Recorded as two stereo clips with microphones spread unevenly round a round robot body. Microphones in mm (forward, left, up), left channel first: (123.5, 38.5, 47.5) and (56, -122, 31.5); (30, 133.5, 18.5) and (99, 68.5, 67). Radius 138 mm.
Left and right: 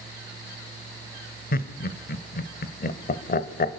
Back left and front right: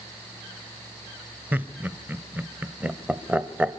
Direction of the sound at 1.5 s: 50° left.